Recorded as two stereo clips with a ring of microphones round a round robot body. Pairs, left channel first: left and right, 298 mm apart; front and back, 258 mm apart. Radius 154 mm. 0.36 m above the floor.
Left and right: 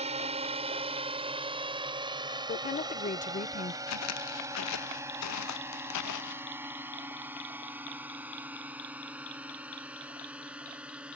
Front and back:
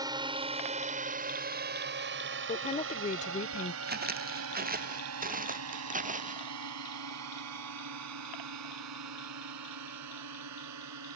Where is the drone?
125° right; by 11.2 s 175° right.